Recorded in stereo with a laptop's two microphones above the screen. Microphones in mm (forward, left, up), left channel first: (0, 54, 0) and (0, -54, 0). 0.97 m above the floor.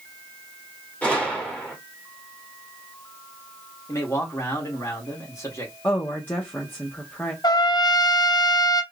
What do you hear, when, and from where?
1.0 s a gunshot: 15° left (ahead or behind), 2.5 m
3.9 s a man speaking: 30° left (ahead or behind), 1.9 m
5.8 s a woman speaking: 20° left (ahead or behind), 0.6 m
7.4 s a trumpet: 40° left (ahead or behind), 0.6 m